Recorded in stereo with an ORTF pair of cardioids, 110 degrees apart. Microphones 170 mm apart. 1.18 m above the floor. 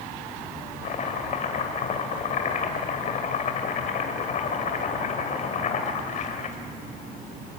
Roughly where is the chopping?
Ahead left.